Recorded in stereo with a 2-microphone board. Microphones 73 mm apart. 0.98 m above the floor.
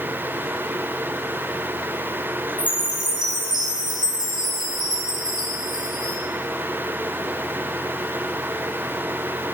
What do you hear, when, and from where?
2.6 s a chime: 75° right (ahead or behind), 3.5 m